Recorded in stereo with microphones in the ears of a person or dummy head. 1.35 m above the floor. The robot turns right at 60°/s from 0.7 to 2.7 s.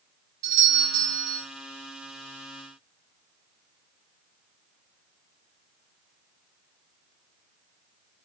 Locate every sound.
0.4 s a doorbell: 35° right, 2.5 m; by 1.5 s 10° left, 2.5 m